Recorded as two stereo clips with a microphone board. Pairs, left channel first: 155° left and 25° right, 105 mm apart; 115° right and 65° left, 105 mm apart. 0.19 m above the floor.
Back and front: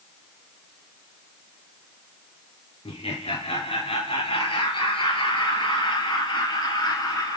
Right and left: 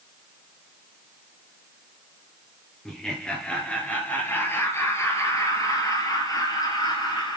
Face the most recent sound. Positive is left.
turn(degrees=-155)